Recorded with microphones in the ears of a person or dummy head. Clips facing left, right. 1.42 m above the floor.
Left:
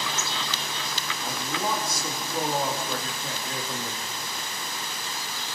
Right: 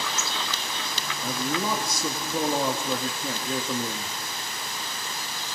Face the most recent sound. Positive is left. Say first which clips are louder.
# right 3 dB
turn(degrees=-85)